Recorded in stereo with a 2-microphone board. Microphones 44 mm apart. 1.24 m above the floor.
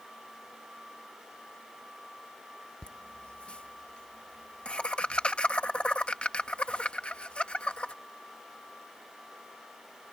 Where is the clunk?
I don't hear a clunk.